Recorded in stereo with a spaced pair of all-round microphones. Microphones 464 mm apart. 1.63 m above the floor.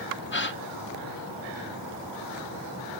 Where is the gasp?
25° left (ahead or behind), 0.8 m.